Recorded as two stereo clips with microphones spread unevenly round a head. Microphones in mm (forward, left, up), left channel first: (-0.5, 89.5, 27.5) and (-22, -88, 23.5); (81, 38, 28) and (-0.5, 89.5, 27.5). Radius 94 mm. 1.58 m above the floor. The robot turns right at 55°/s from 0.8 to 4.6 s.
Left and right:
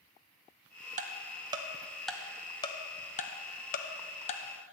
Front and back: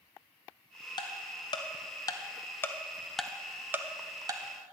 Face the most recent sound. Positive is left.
turn(degrees=135)